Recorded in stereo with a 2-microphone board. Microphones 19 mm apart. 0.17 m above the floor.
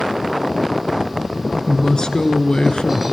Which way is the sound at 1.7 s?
35° left (ahead or behind).